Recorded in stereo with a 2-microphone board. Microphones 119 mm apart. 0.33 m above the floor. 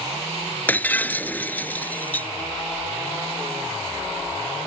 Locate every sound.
0.7 s breaking glass: 15° left (ahead or behind)